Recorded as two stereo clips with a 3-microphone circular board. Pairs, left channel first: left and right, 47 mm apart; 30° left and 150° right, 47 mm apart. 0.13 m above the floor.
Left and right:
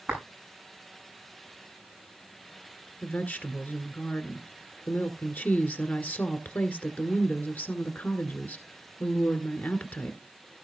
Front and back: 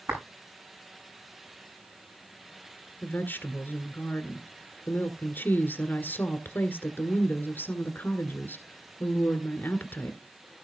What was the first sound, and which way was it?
A clap, 160° right.